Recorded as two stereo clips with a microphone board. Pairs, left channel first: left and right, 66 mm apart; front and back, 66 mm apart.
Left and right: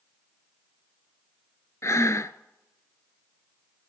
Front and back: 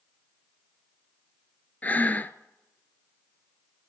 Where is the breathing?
55° left, 0.6 m.